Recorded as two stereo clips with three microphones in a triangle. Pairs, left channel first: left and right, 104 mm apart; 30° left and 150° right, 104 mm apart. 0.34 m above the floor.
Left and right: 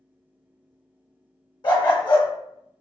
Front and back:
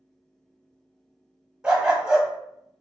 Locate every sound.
1.6 s a dog barking: 125° left, 0.8 m